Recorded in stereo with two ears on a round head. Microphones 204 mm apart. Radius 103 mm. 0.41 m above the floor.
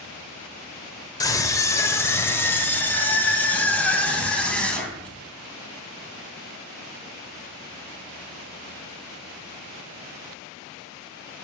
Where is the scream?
15° left (ahead or behind), 1.3 m; by 5.1 s 5° left (ahead or behind), 3 m.